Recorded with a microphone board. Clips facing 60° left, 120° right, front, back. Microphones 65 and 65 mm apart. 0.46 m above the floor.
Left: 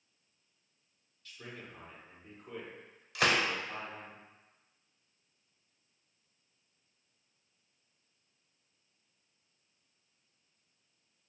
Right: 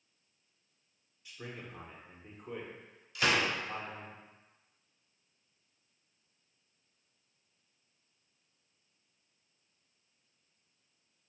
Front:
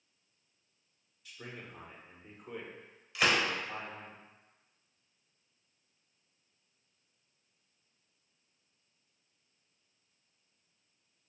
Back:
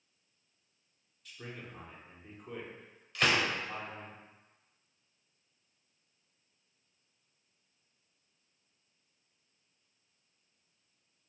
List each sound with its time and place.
1.2 s a man speaking: 80° right, 0.7 m
3.1 s a gunshot: 85° left, 0.6 m